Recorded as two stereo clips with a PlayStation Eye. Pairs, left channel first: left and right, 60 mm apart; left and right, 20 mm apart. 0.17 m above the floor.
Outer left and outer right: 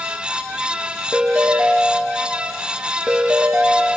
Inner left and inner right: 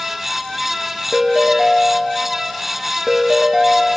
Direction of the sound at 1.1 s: 10° right (ahead or behind).